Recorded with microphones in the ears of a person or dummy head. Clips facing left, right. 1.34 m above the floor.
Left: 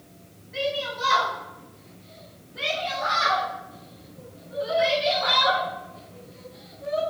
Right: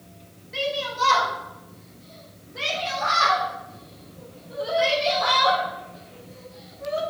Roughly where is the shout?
Right.